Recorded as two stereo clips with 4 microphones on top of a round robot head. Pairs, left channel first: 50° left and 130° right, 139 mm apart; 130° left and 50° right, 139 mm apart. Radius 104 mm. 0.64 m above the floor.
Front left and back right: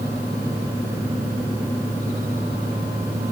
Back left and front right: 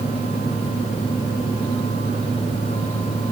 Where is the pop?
No pop in this recording.